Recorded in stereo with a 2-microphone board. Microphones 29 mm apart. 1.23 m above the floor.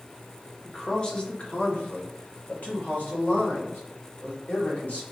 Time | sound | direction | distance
0.7 | a man speaking | 15° left (ahead or behind) | 0.9 m